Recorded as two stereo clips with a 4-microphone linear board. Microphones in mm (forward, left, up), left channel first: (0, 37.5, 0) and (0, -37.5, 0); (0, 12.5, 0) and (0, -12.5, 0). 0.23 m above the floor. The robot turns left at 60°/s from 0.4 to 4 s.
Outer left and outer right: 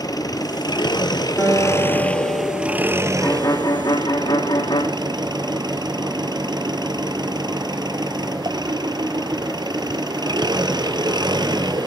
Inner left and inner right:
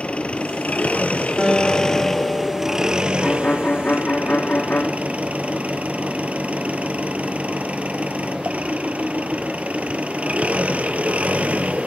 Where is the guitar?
160° left, 9 m; by 3.1 s 55° left, 9 m.